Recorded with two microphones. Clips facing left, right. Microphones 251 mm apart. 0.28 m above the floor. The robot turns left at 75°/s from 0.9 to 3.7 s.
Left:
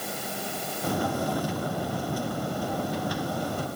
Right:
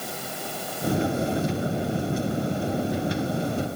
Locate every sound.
Only background noise.